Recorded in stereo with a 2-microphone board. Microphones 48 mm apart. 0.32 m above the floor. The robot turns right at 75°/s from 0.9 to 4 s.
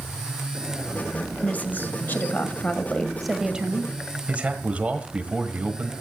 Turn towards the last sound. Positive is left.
turn(degrees=-25)  # may be behind; listen again after turning